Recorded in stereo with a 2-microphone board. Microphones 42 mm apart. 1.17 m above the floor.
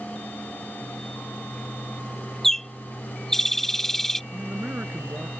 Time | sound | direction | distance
2.4 | a bird | 10° left (ahead or behind) | ?
4.3 | a man speaking | 50° right (ahead or behind) | ?